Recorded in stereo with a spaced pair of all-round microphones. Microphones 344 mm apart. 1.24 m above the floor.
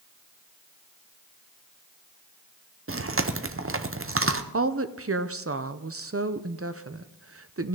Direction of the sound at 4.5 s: 40° right (ahead or behind).